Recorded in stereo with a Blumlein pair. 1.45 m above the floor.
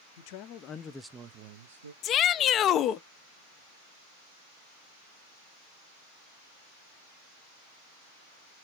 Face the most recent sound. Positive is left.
turn(degrees=30)